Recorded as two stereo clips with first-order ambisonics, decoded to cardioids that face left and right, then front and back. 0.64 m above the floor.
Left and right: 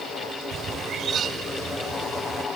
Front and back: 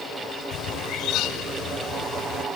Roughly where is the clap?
I don't hear a clap.